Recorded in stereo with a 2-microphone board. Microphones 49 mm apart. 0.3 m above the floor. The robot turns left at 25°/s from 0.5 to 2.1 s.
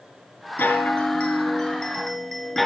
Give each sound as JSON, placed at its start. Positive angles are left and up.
{"t": 0.6, "sound": "a chime", "azimuth_deg": 50, "distance_m": 2.0}